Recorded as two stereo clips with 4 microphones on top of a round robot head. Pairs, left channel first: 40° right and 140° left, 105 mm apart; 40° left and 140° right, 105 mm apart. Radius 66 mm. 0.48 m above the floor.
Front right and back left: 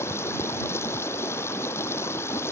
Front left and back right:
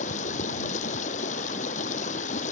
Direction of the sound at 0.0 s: 30° left.